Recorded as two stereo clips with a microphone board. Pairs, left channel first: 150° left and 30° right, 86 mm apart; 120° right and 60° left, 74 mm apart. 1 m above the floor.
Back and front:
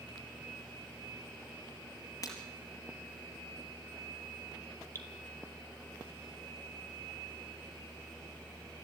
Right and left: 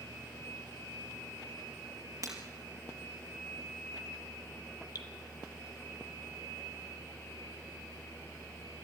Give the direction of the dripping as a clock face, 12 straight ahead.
5 o'clock.